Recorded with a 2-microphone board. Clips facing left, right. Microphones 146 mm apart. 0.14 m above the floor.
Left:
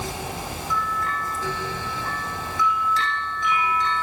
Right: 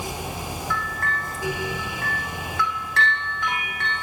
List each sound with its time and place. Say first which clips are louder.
0.7 s a bell: left 4 dB; 65° right (ahead or behind), 5 m